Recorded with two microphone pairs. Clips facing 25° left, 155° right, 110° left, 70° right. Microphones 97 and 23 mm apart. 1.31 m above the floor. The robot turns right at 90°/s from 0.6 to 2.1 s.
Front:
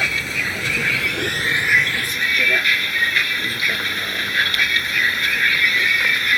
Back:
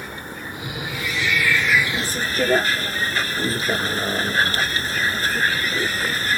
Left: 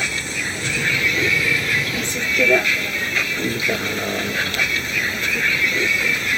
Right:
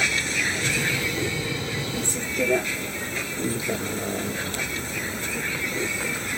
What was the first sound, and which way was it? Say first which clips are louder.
A vehicle: front 7 dB, even; 15° left.